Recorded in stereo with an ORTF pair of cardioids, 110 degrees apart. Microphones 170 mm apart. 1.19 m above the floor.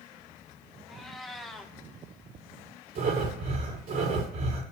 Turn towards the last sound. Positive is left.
turn(degrees=-60)